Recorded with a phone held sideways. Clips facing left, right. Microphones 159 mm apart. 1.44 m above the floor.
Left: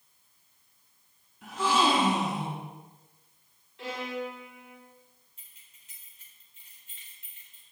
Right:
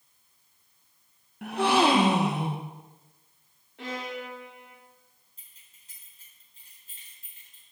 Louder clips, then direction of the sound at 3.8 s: Left 1 dB; 75° right (ahead or behind).